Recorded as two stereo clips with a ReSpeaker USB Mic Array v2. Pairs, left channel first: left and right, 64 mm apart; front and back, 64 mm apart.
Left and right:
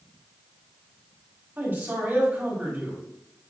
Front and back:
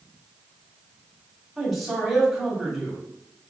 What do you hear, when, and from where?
1.6 s a man speaking: 95° right, 1.7 m